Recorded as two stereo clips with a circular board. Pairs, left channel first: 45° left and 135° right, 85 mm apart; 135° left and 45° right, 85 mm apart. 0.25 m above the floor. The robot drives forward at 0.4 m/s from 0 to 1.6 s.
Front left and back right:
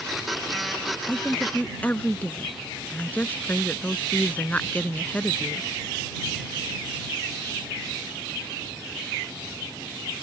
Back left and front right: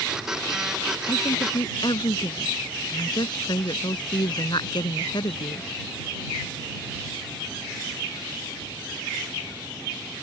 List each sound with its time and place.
1.1 s a woman speaking: 110° left; by 5.7 s 115° left